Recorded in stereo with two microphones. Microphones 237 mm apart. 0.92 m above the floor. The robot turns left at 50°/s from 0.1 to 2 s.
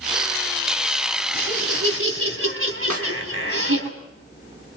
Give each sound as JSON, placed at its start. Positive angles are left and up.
{"t": 1.3, "sound": "laughter", "azimuth_deg": -70, "distance_m": 4.0}
{"t": 2.9, "sound": "a snare drum", "side_deg": -75, "distance_m": 2.5}